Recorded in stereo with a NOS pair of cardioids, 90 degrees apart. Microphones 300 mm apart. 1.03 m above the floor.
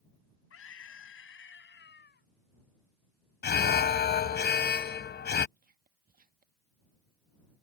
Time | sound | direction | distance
0.5 | a scream | 50° left | ?
3.4 | an alarm | 35° left | ?
5.6 | whispering | 30° right | ?